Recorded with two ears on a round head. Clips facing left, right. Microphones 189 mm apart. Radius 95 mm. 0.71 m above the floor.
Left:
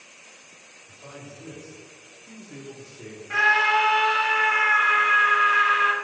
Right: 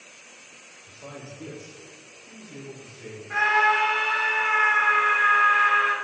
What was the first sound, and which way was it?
A man speaking, 45° right (ahead or behind).